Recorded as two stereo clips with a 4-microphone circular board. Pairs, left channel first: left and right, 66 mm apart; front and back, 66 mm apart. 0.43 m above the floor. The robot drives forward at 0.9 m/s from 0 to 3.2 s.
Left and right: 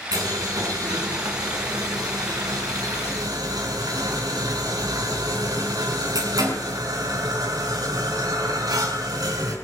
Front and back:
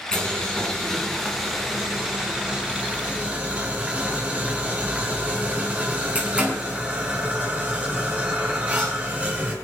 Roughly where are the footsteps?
No footsteps in this recording.